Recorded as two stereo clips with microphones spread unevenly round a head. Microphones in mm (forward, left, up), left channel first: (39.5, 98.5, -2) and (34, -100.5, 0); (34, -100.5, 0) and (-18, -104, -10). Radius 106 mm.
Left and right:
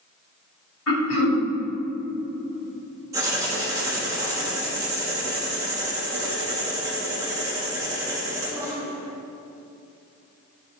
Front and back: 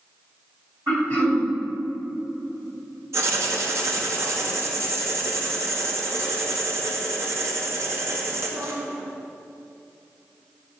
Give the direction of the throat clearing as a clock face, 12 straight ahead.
8 o'clock.